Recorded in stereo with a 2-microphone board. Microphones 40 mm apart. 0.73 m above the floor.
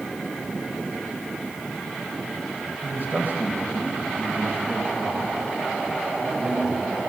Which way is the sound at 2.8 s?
50° right (ahead or behind).